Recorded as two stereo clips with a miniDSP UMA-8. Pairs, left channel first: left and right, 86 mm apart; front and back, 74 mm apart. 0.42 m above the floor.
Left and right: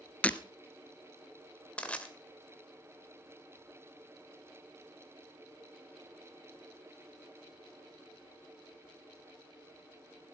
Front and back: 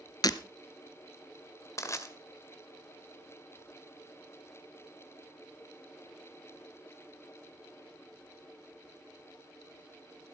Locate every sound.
0.2 s breaking glass: 20° left, 0.7 m
1.8 s crushing: 20° left, 1.8 m